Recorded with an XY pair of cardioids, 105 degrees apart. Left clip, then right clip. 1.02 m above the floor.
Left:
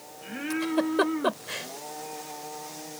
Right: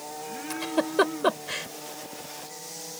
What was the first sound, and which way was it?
A giggle, 10° right.